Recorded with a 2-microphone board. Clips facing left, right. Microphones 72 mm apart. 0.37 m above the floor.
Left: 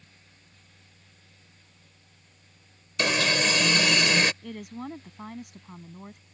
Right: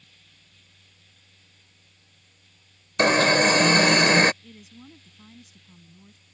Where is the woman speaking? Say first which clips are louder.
Left 10 dB; 65° left (ahead or behind).